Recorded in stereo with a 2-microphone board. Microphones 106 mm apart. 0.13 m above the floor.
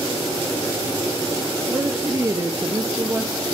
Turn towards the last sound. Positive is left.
turn(degrees=-30)  # may be behind; listen again after turning